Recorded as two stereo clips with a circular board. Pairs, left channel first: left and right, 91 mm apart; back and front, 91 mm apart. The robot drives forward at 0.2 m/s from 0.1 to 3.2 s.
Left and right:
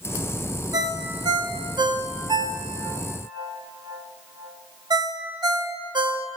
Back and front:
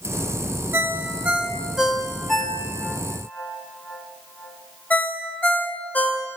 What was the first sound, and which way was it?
A ringtone, 60° right.